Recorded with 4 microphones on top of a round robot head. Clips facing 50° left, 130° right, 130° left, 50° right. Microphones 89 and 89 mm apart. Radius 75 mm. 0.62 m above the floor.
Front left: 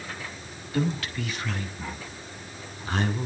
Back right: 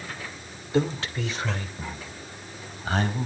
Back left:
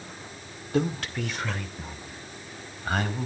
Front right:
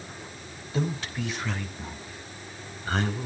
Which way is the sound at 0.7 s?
165° left.